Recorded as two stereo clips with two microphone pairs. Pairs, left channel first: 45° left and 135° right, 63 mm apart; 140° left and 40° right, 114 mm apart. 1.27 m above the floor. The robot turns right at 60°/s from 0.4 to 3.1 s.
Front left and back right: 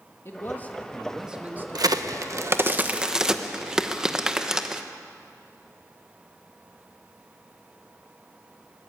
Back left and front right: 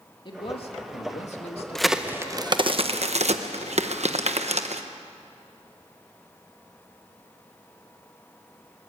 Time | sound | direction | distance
0.2 | a man speaking | 95° left | 2 m
1.8 | a crack | 135° right | 1.1 m